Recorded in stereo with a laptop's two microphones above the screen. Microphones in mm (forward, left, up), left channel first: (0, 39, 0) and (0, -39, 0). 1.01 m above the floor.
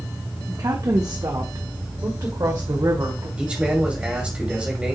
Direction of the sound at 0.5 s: 55° right (ahead or behind).